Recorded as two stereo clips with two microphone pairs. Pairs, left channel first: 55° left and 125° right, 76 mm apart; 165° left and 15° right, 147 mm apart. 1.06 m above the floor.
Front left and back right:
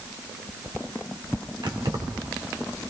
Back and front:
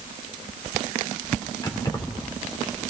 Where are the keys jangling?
130° right, 2 m.